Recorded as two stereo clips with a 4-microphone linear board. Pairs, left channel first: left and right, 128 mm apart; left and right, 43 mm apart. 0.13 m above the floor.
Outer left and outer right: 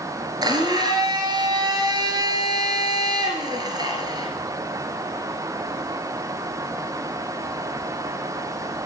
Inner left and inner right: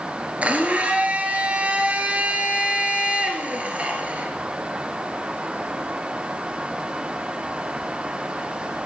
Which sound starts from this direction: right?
A blender, at 0.4 s.